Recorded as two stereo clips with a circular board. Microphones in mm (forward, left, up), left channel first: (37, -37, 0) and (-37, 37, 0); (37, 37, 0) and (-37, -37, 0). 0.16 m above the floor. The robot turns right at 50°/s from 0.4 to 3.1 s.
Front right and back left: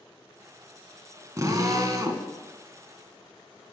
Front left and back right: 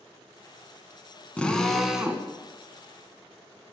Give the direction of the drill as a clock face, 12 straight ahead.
8 o'clock.